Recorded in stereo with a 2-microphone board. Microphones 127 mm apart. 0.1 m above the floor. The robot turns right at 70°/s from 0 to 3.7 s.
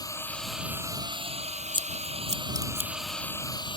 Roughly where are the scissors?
Right.